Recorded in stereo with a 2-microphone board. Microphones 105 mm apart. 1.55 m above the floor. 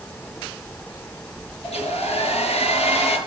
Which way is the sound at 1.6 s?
80° left.